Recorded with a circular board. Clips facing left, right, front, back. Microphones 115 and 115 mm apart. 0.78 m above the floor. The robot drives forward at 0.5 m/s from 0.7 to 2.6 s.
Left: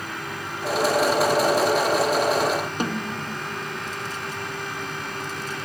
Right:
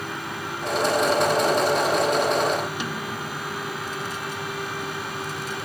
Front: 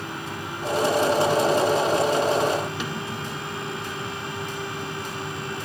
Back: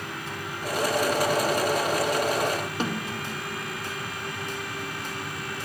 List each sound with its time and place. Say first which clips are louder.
2.8 s a snare drum: left 3 dB, back 1 dB; 130° left, 1.2 m